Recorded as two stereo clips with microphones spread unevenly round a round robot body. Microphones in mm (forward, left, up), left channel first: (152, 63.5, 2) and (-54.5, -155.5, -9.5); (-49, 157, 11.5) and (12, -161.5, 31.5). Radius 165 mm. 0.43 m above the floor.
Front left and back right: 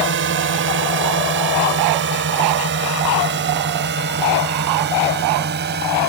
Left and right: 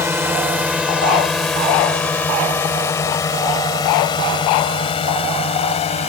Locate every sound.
0.0 s a drone: 160° right; by 6.1 s 170° left